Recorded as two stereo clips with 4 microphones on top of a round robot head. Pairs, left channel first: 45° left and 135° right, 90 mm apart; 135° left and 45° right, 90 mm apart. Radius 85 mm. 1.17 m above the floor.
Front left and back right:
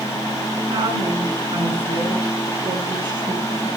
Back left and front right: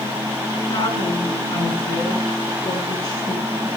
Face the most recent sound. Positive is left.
turn(degrees=175)